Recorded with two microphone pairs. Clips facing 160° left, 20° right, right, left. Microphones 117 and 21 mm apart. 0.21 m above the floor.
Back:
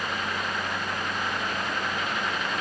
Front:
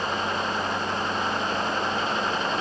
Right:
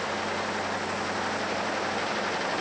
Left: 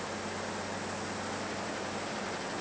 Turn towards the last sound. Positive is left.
No sound to turn to.